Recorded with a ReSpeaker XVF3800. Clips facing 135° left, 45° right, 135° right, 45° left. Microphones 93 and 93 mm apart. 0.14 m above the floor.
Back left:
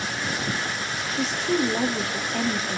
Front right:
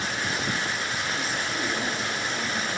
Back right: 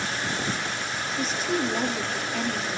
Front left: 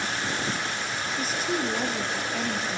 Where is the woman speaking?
130° left, 2.5 m.